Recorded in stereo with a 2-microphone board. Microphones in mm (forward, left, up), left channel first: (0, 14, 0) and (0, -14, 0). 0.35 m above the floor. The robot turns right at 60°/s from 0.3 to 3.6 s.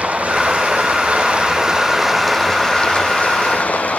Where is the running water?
115° right, 1.6 m; by 4.0 s 85° left, 1.6 m.